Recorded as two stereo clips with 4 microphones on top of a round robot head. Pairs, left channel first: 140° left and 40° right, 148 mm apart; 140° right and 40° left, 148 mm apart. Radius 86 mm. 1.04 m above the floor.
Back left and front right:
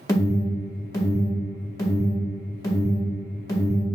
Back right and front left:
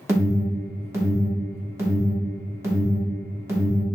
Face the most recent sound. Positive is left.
turn(degrees=95)